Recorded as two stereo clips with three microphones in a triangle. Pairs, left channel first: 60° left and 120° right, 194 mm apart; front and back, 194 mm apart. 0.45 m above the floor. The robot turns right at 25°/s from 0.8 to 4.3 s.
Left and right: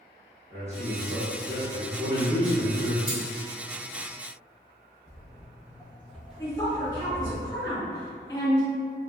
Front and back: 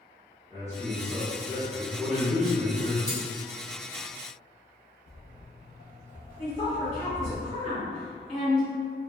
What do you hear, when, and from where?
0.5 s a man speaking: 125° right, 1.2 m; by 3.0 s 70° right, 1.2 m
3.1 s cutlery clinking: 15° right, 1.1 m; by 3.2 s 10° right, 1.1 m
5.1 s footsteps: 15° left, 0.9 m; by 7.4 s 55° right, 1.3 m
6.4 s a woman speaking: 5° left, 0.9 m